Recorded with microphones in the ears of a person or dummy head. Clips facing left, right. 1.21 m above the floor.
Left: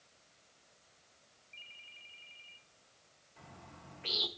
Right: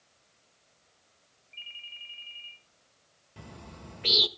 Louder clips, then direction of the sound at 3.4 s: Right 8 dB; 50° right (ahead or behind).